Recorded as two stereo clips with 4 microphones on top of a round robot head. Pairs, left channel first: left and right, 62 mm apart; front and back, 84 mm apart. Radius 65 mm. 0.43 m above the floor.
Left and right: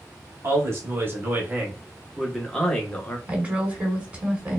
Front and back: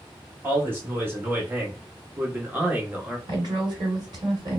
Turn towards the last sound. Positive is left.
turn(degrees=-155)